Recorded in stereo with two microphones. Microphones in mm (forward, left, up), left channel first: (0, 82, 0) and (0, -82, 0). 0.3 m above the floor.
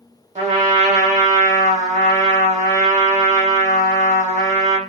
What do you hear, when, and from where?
0.3 s a trumpet: 40° right (ahead or behind), 0.8 m